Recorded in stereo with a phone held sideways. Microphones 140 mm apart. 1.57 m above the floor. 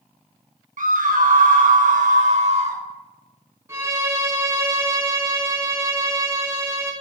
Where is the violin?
20° right (ahead or behind), 1.5 m.